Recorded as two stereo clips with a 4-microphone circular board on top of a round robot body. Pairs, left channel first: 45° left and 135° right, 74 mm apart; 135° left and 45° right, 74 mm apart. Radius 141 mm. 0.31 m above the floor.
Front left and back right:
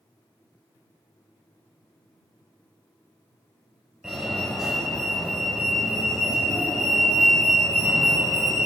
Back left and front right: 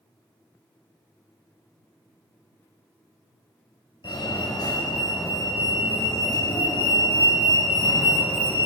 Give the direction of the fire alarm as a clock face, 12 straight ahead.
7 o'clock.